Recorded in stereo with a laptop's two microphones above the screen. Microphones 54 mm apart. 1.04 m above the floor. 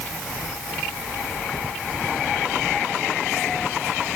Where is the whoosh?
No whoosh in this recording.